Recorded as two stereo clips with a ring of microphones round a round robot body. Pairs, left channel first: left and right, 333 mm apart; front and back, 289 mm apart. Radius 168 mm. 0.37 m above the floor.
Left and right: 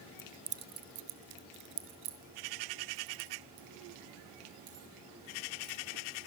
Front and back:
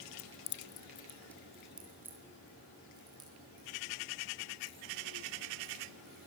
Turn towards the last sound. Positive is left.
turn(degrees=-105)